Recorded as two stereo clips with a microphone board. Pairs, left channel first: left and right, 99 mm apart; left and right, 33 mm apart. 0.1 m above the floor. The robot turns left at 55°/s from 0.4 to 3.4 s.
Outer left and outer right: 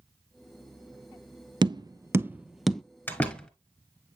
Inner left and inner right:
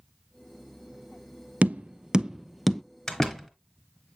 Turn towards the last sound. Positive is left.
turn(degrees=10)  # may be behind; listen again after turning